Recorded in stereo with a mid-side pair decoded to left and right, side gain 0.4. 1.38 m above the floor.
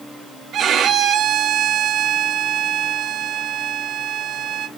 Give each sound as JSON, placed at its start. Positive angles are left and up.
{"t": 0.5, "sound": "a violin", "azimuth_deg": -70, "distance_m": 1.2}